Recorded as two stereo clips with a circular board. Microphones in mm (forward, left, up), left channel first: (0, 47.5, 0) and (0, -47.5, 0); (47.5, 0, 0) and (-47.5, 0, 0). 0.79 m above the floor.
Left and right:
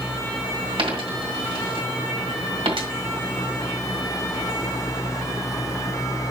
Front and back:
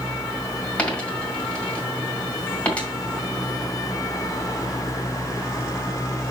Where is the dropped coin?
75° right, 2.5 m.